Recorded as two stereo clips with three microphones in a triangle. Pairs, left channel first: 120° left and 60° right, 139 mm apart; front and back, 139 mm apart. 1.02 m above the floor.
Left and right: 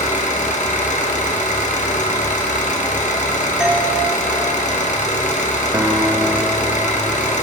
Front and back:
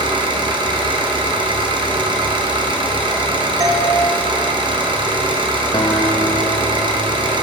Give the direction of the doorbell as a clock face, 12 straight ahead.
5 o'clock.